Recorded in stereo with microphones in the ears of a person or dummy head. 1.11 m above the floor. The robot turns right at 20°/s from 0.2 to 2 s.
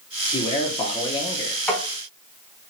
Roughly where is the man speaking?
Left.